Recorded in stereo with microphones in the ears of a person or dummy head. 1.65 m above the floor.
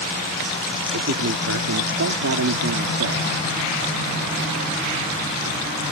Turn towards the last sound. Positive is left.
turn(degrees=-80)